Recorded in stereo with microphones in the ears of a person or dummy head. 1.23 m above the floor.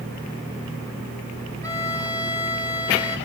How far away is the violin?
About 1.0 m.